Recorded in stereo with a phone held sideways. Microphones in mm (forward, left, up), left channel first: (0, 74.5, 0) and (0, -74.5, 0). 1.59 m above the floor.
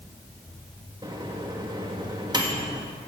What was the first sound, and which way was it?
A microwave, 30° right (ahead or behind).